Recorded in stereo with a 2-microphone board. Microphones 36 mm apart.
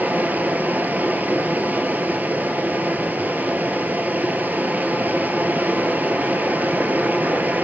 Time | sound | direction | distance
0.0 | running water | 55° right (ahead or behind) | 1.1 m